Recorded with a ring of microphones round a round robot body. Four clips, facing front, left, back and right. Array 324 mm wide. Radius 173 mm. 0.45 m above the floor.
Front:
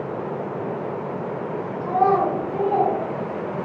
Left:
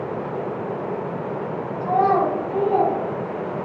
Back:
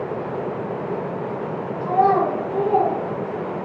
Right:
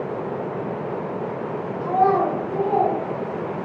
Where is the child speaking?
75° left, 1.9 m; by 3.0 s 105° left, 2.5 m.